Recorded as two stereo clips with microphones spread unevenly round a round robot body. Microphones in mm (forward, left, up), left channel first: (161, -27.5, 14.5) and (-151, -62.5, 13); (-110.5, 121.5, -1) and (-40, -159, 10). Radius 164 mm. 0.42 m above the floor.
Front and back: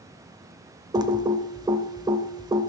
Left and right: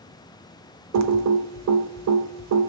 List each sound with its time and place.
0.9 s typing on a keyboard: 100° right, 1.0 m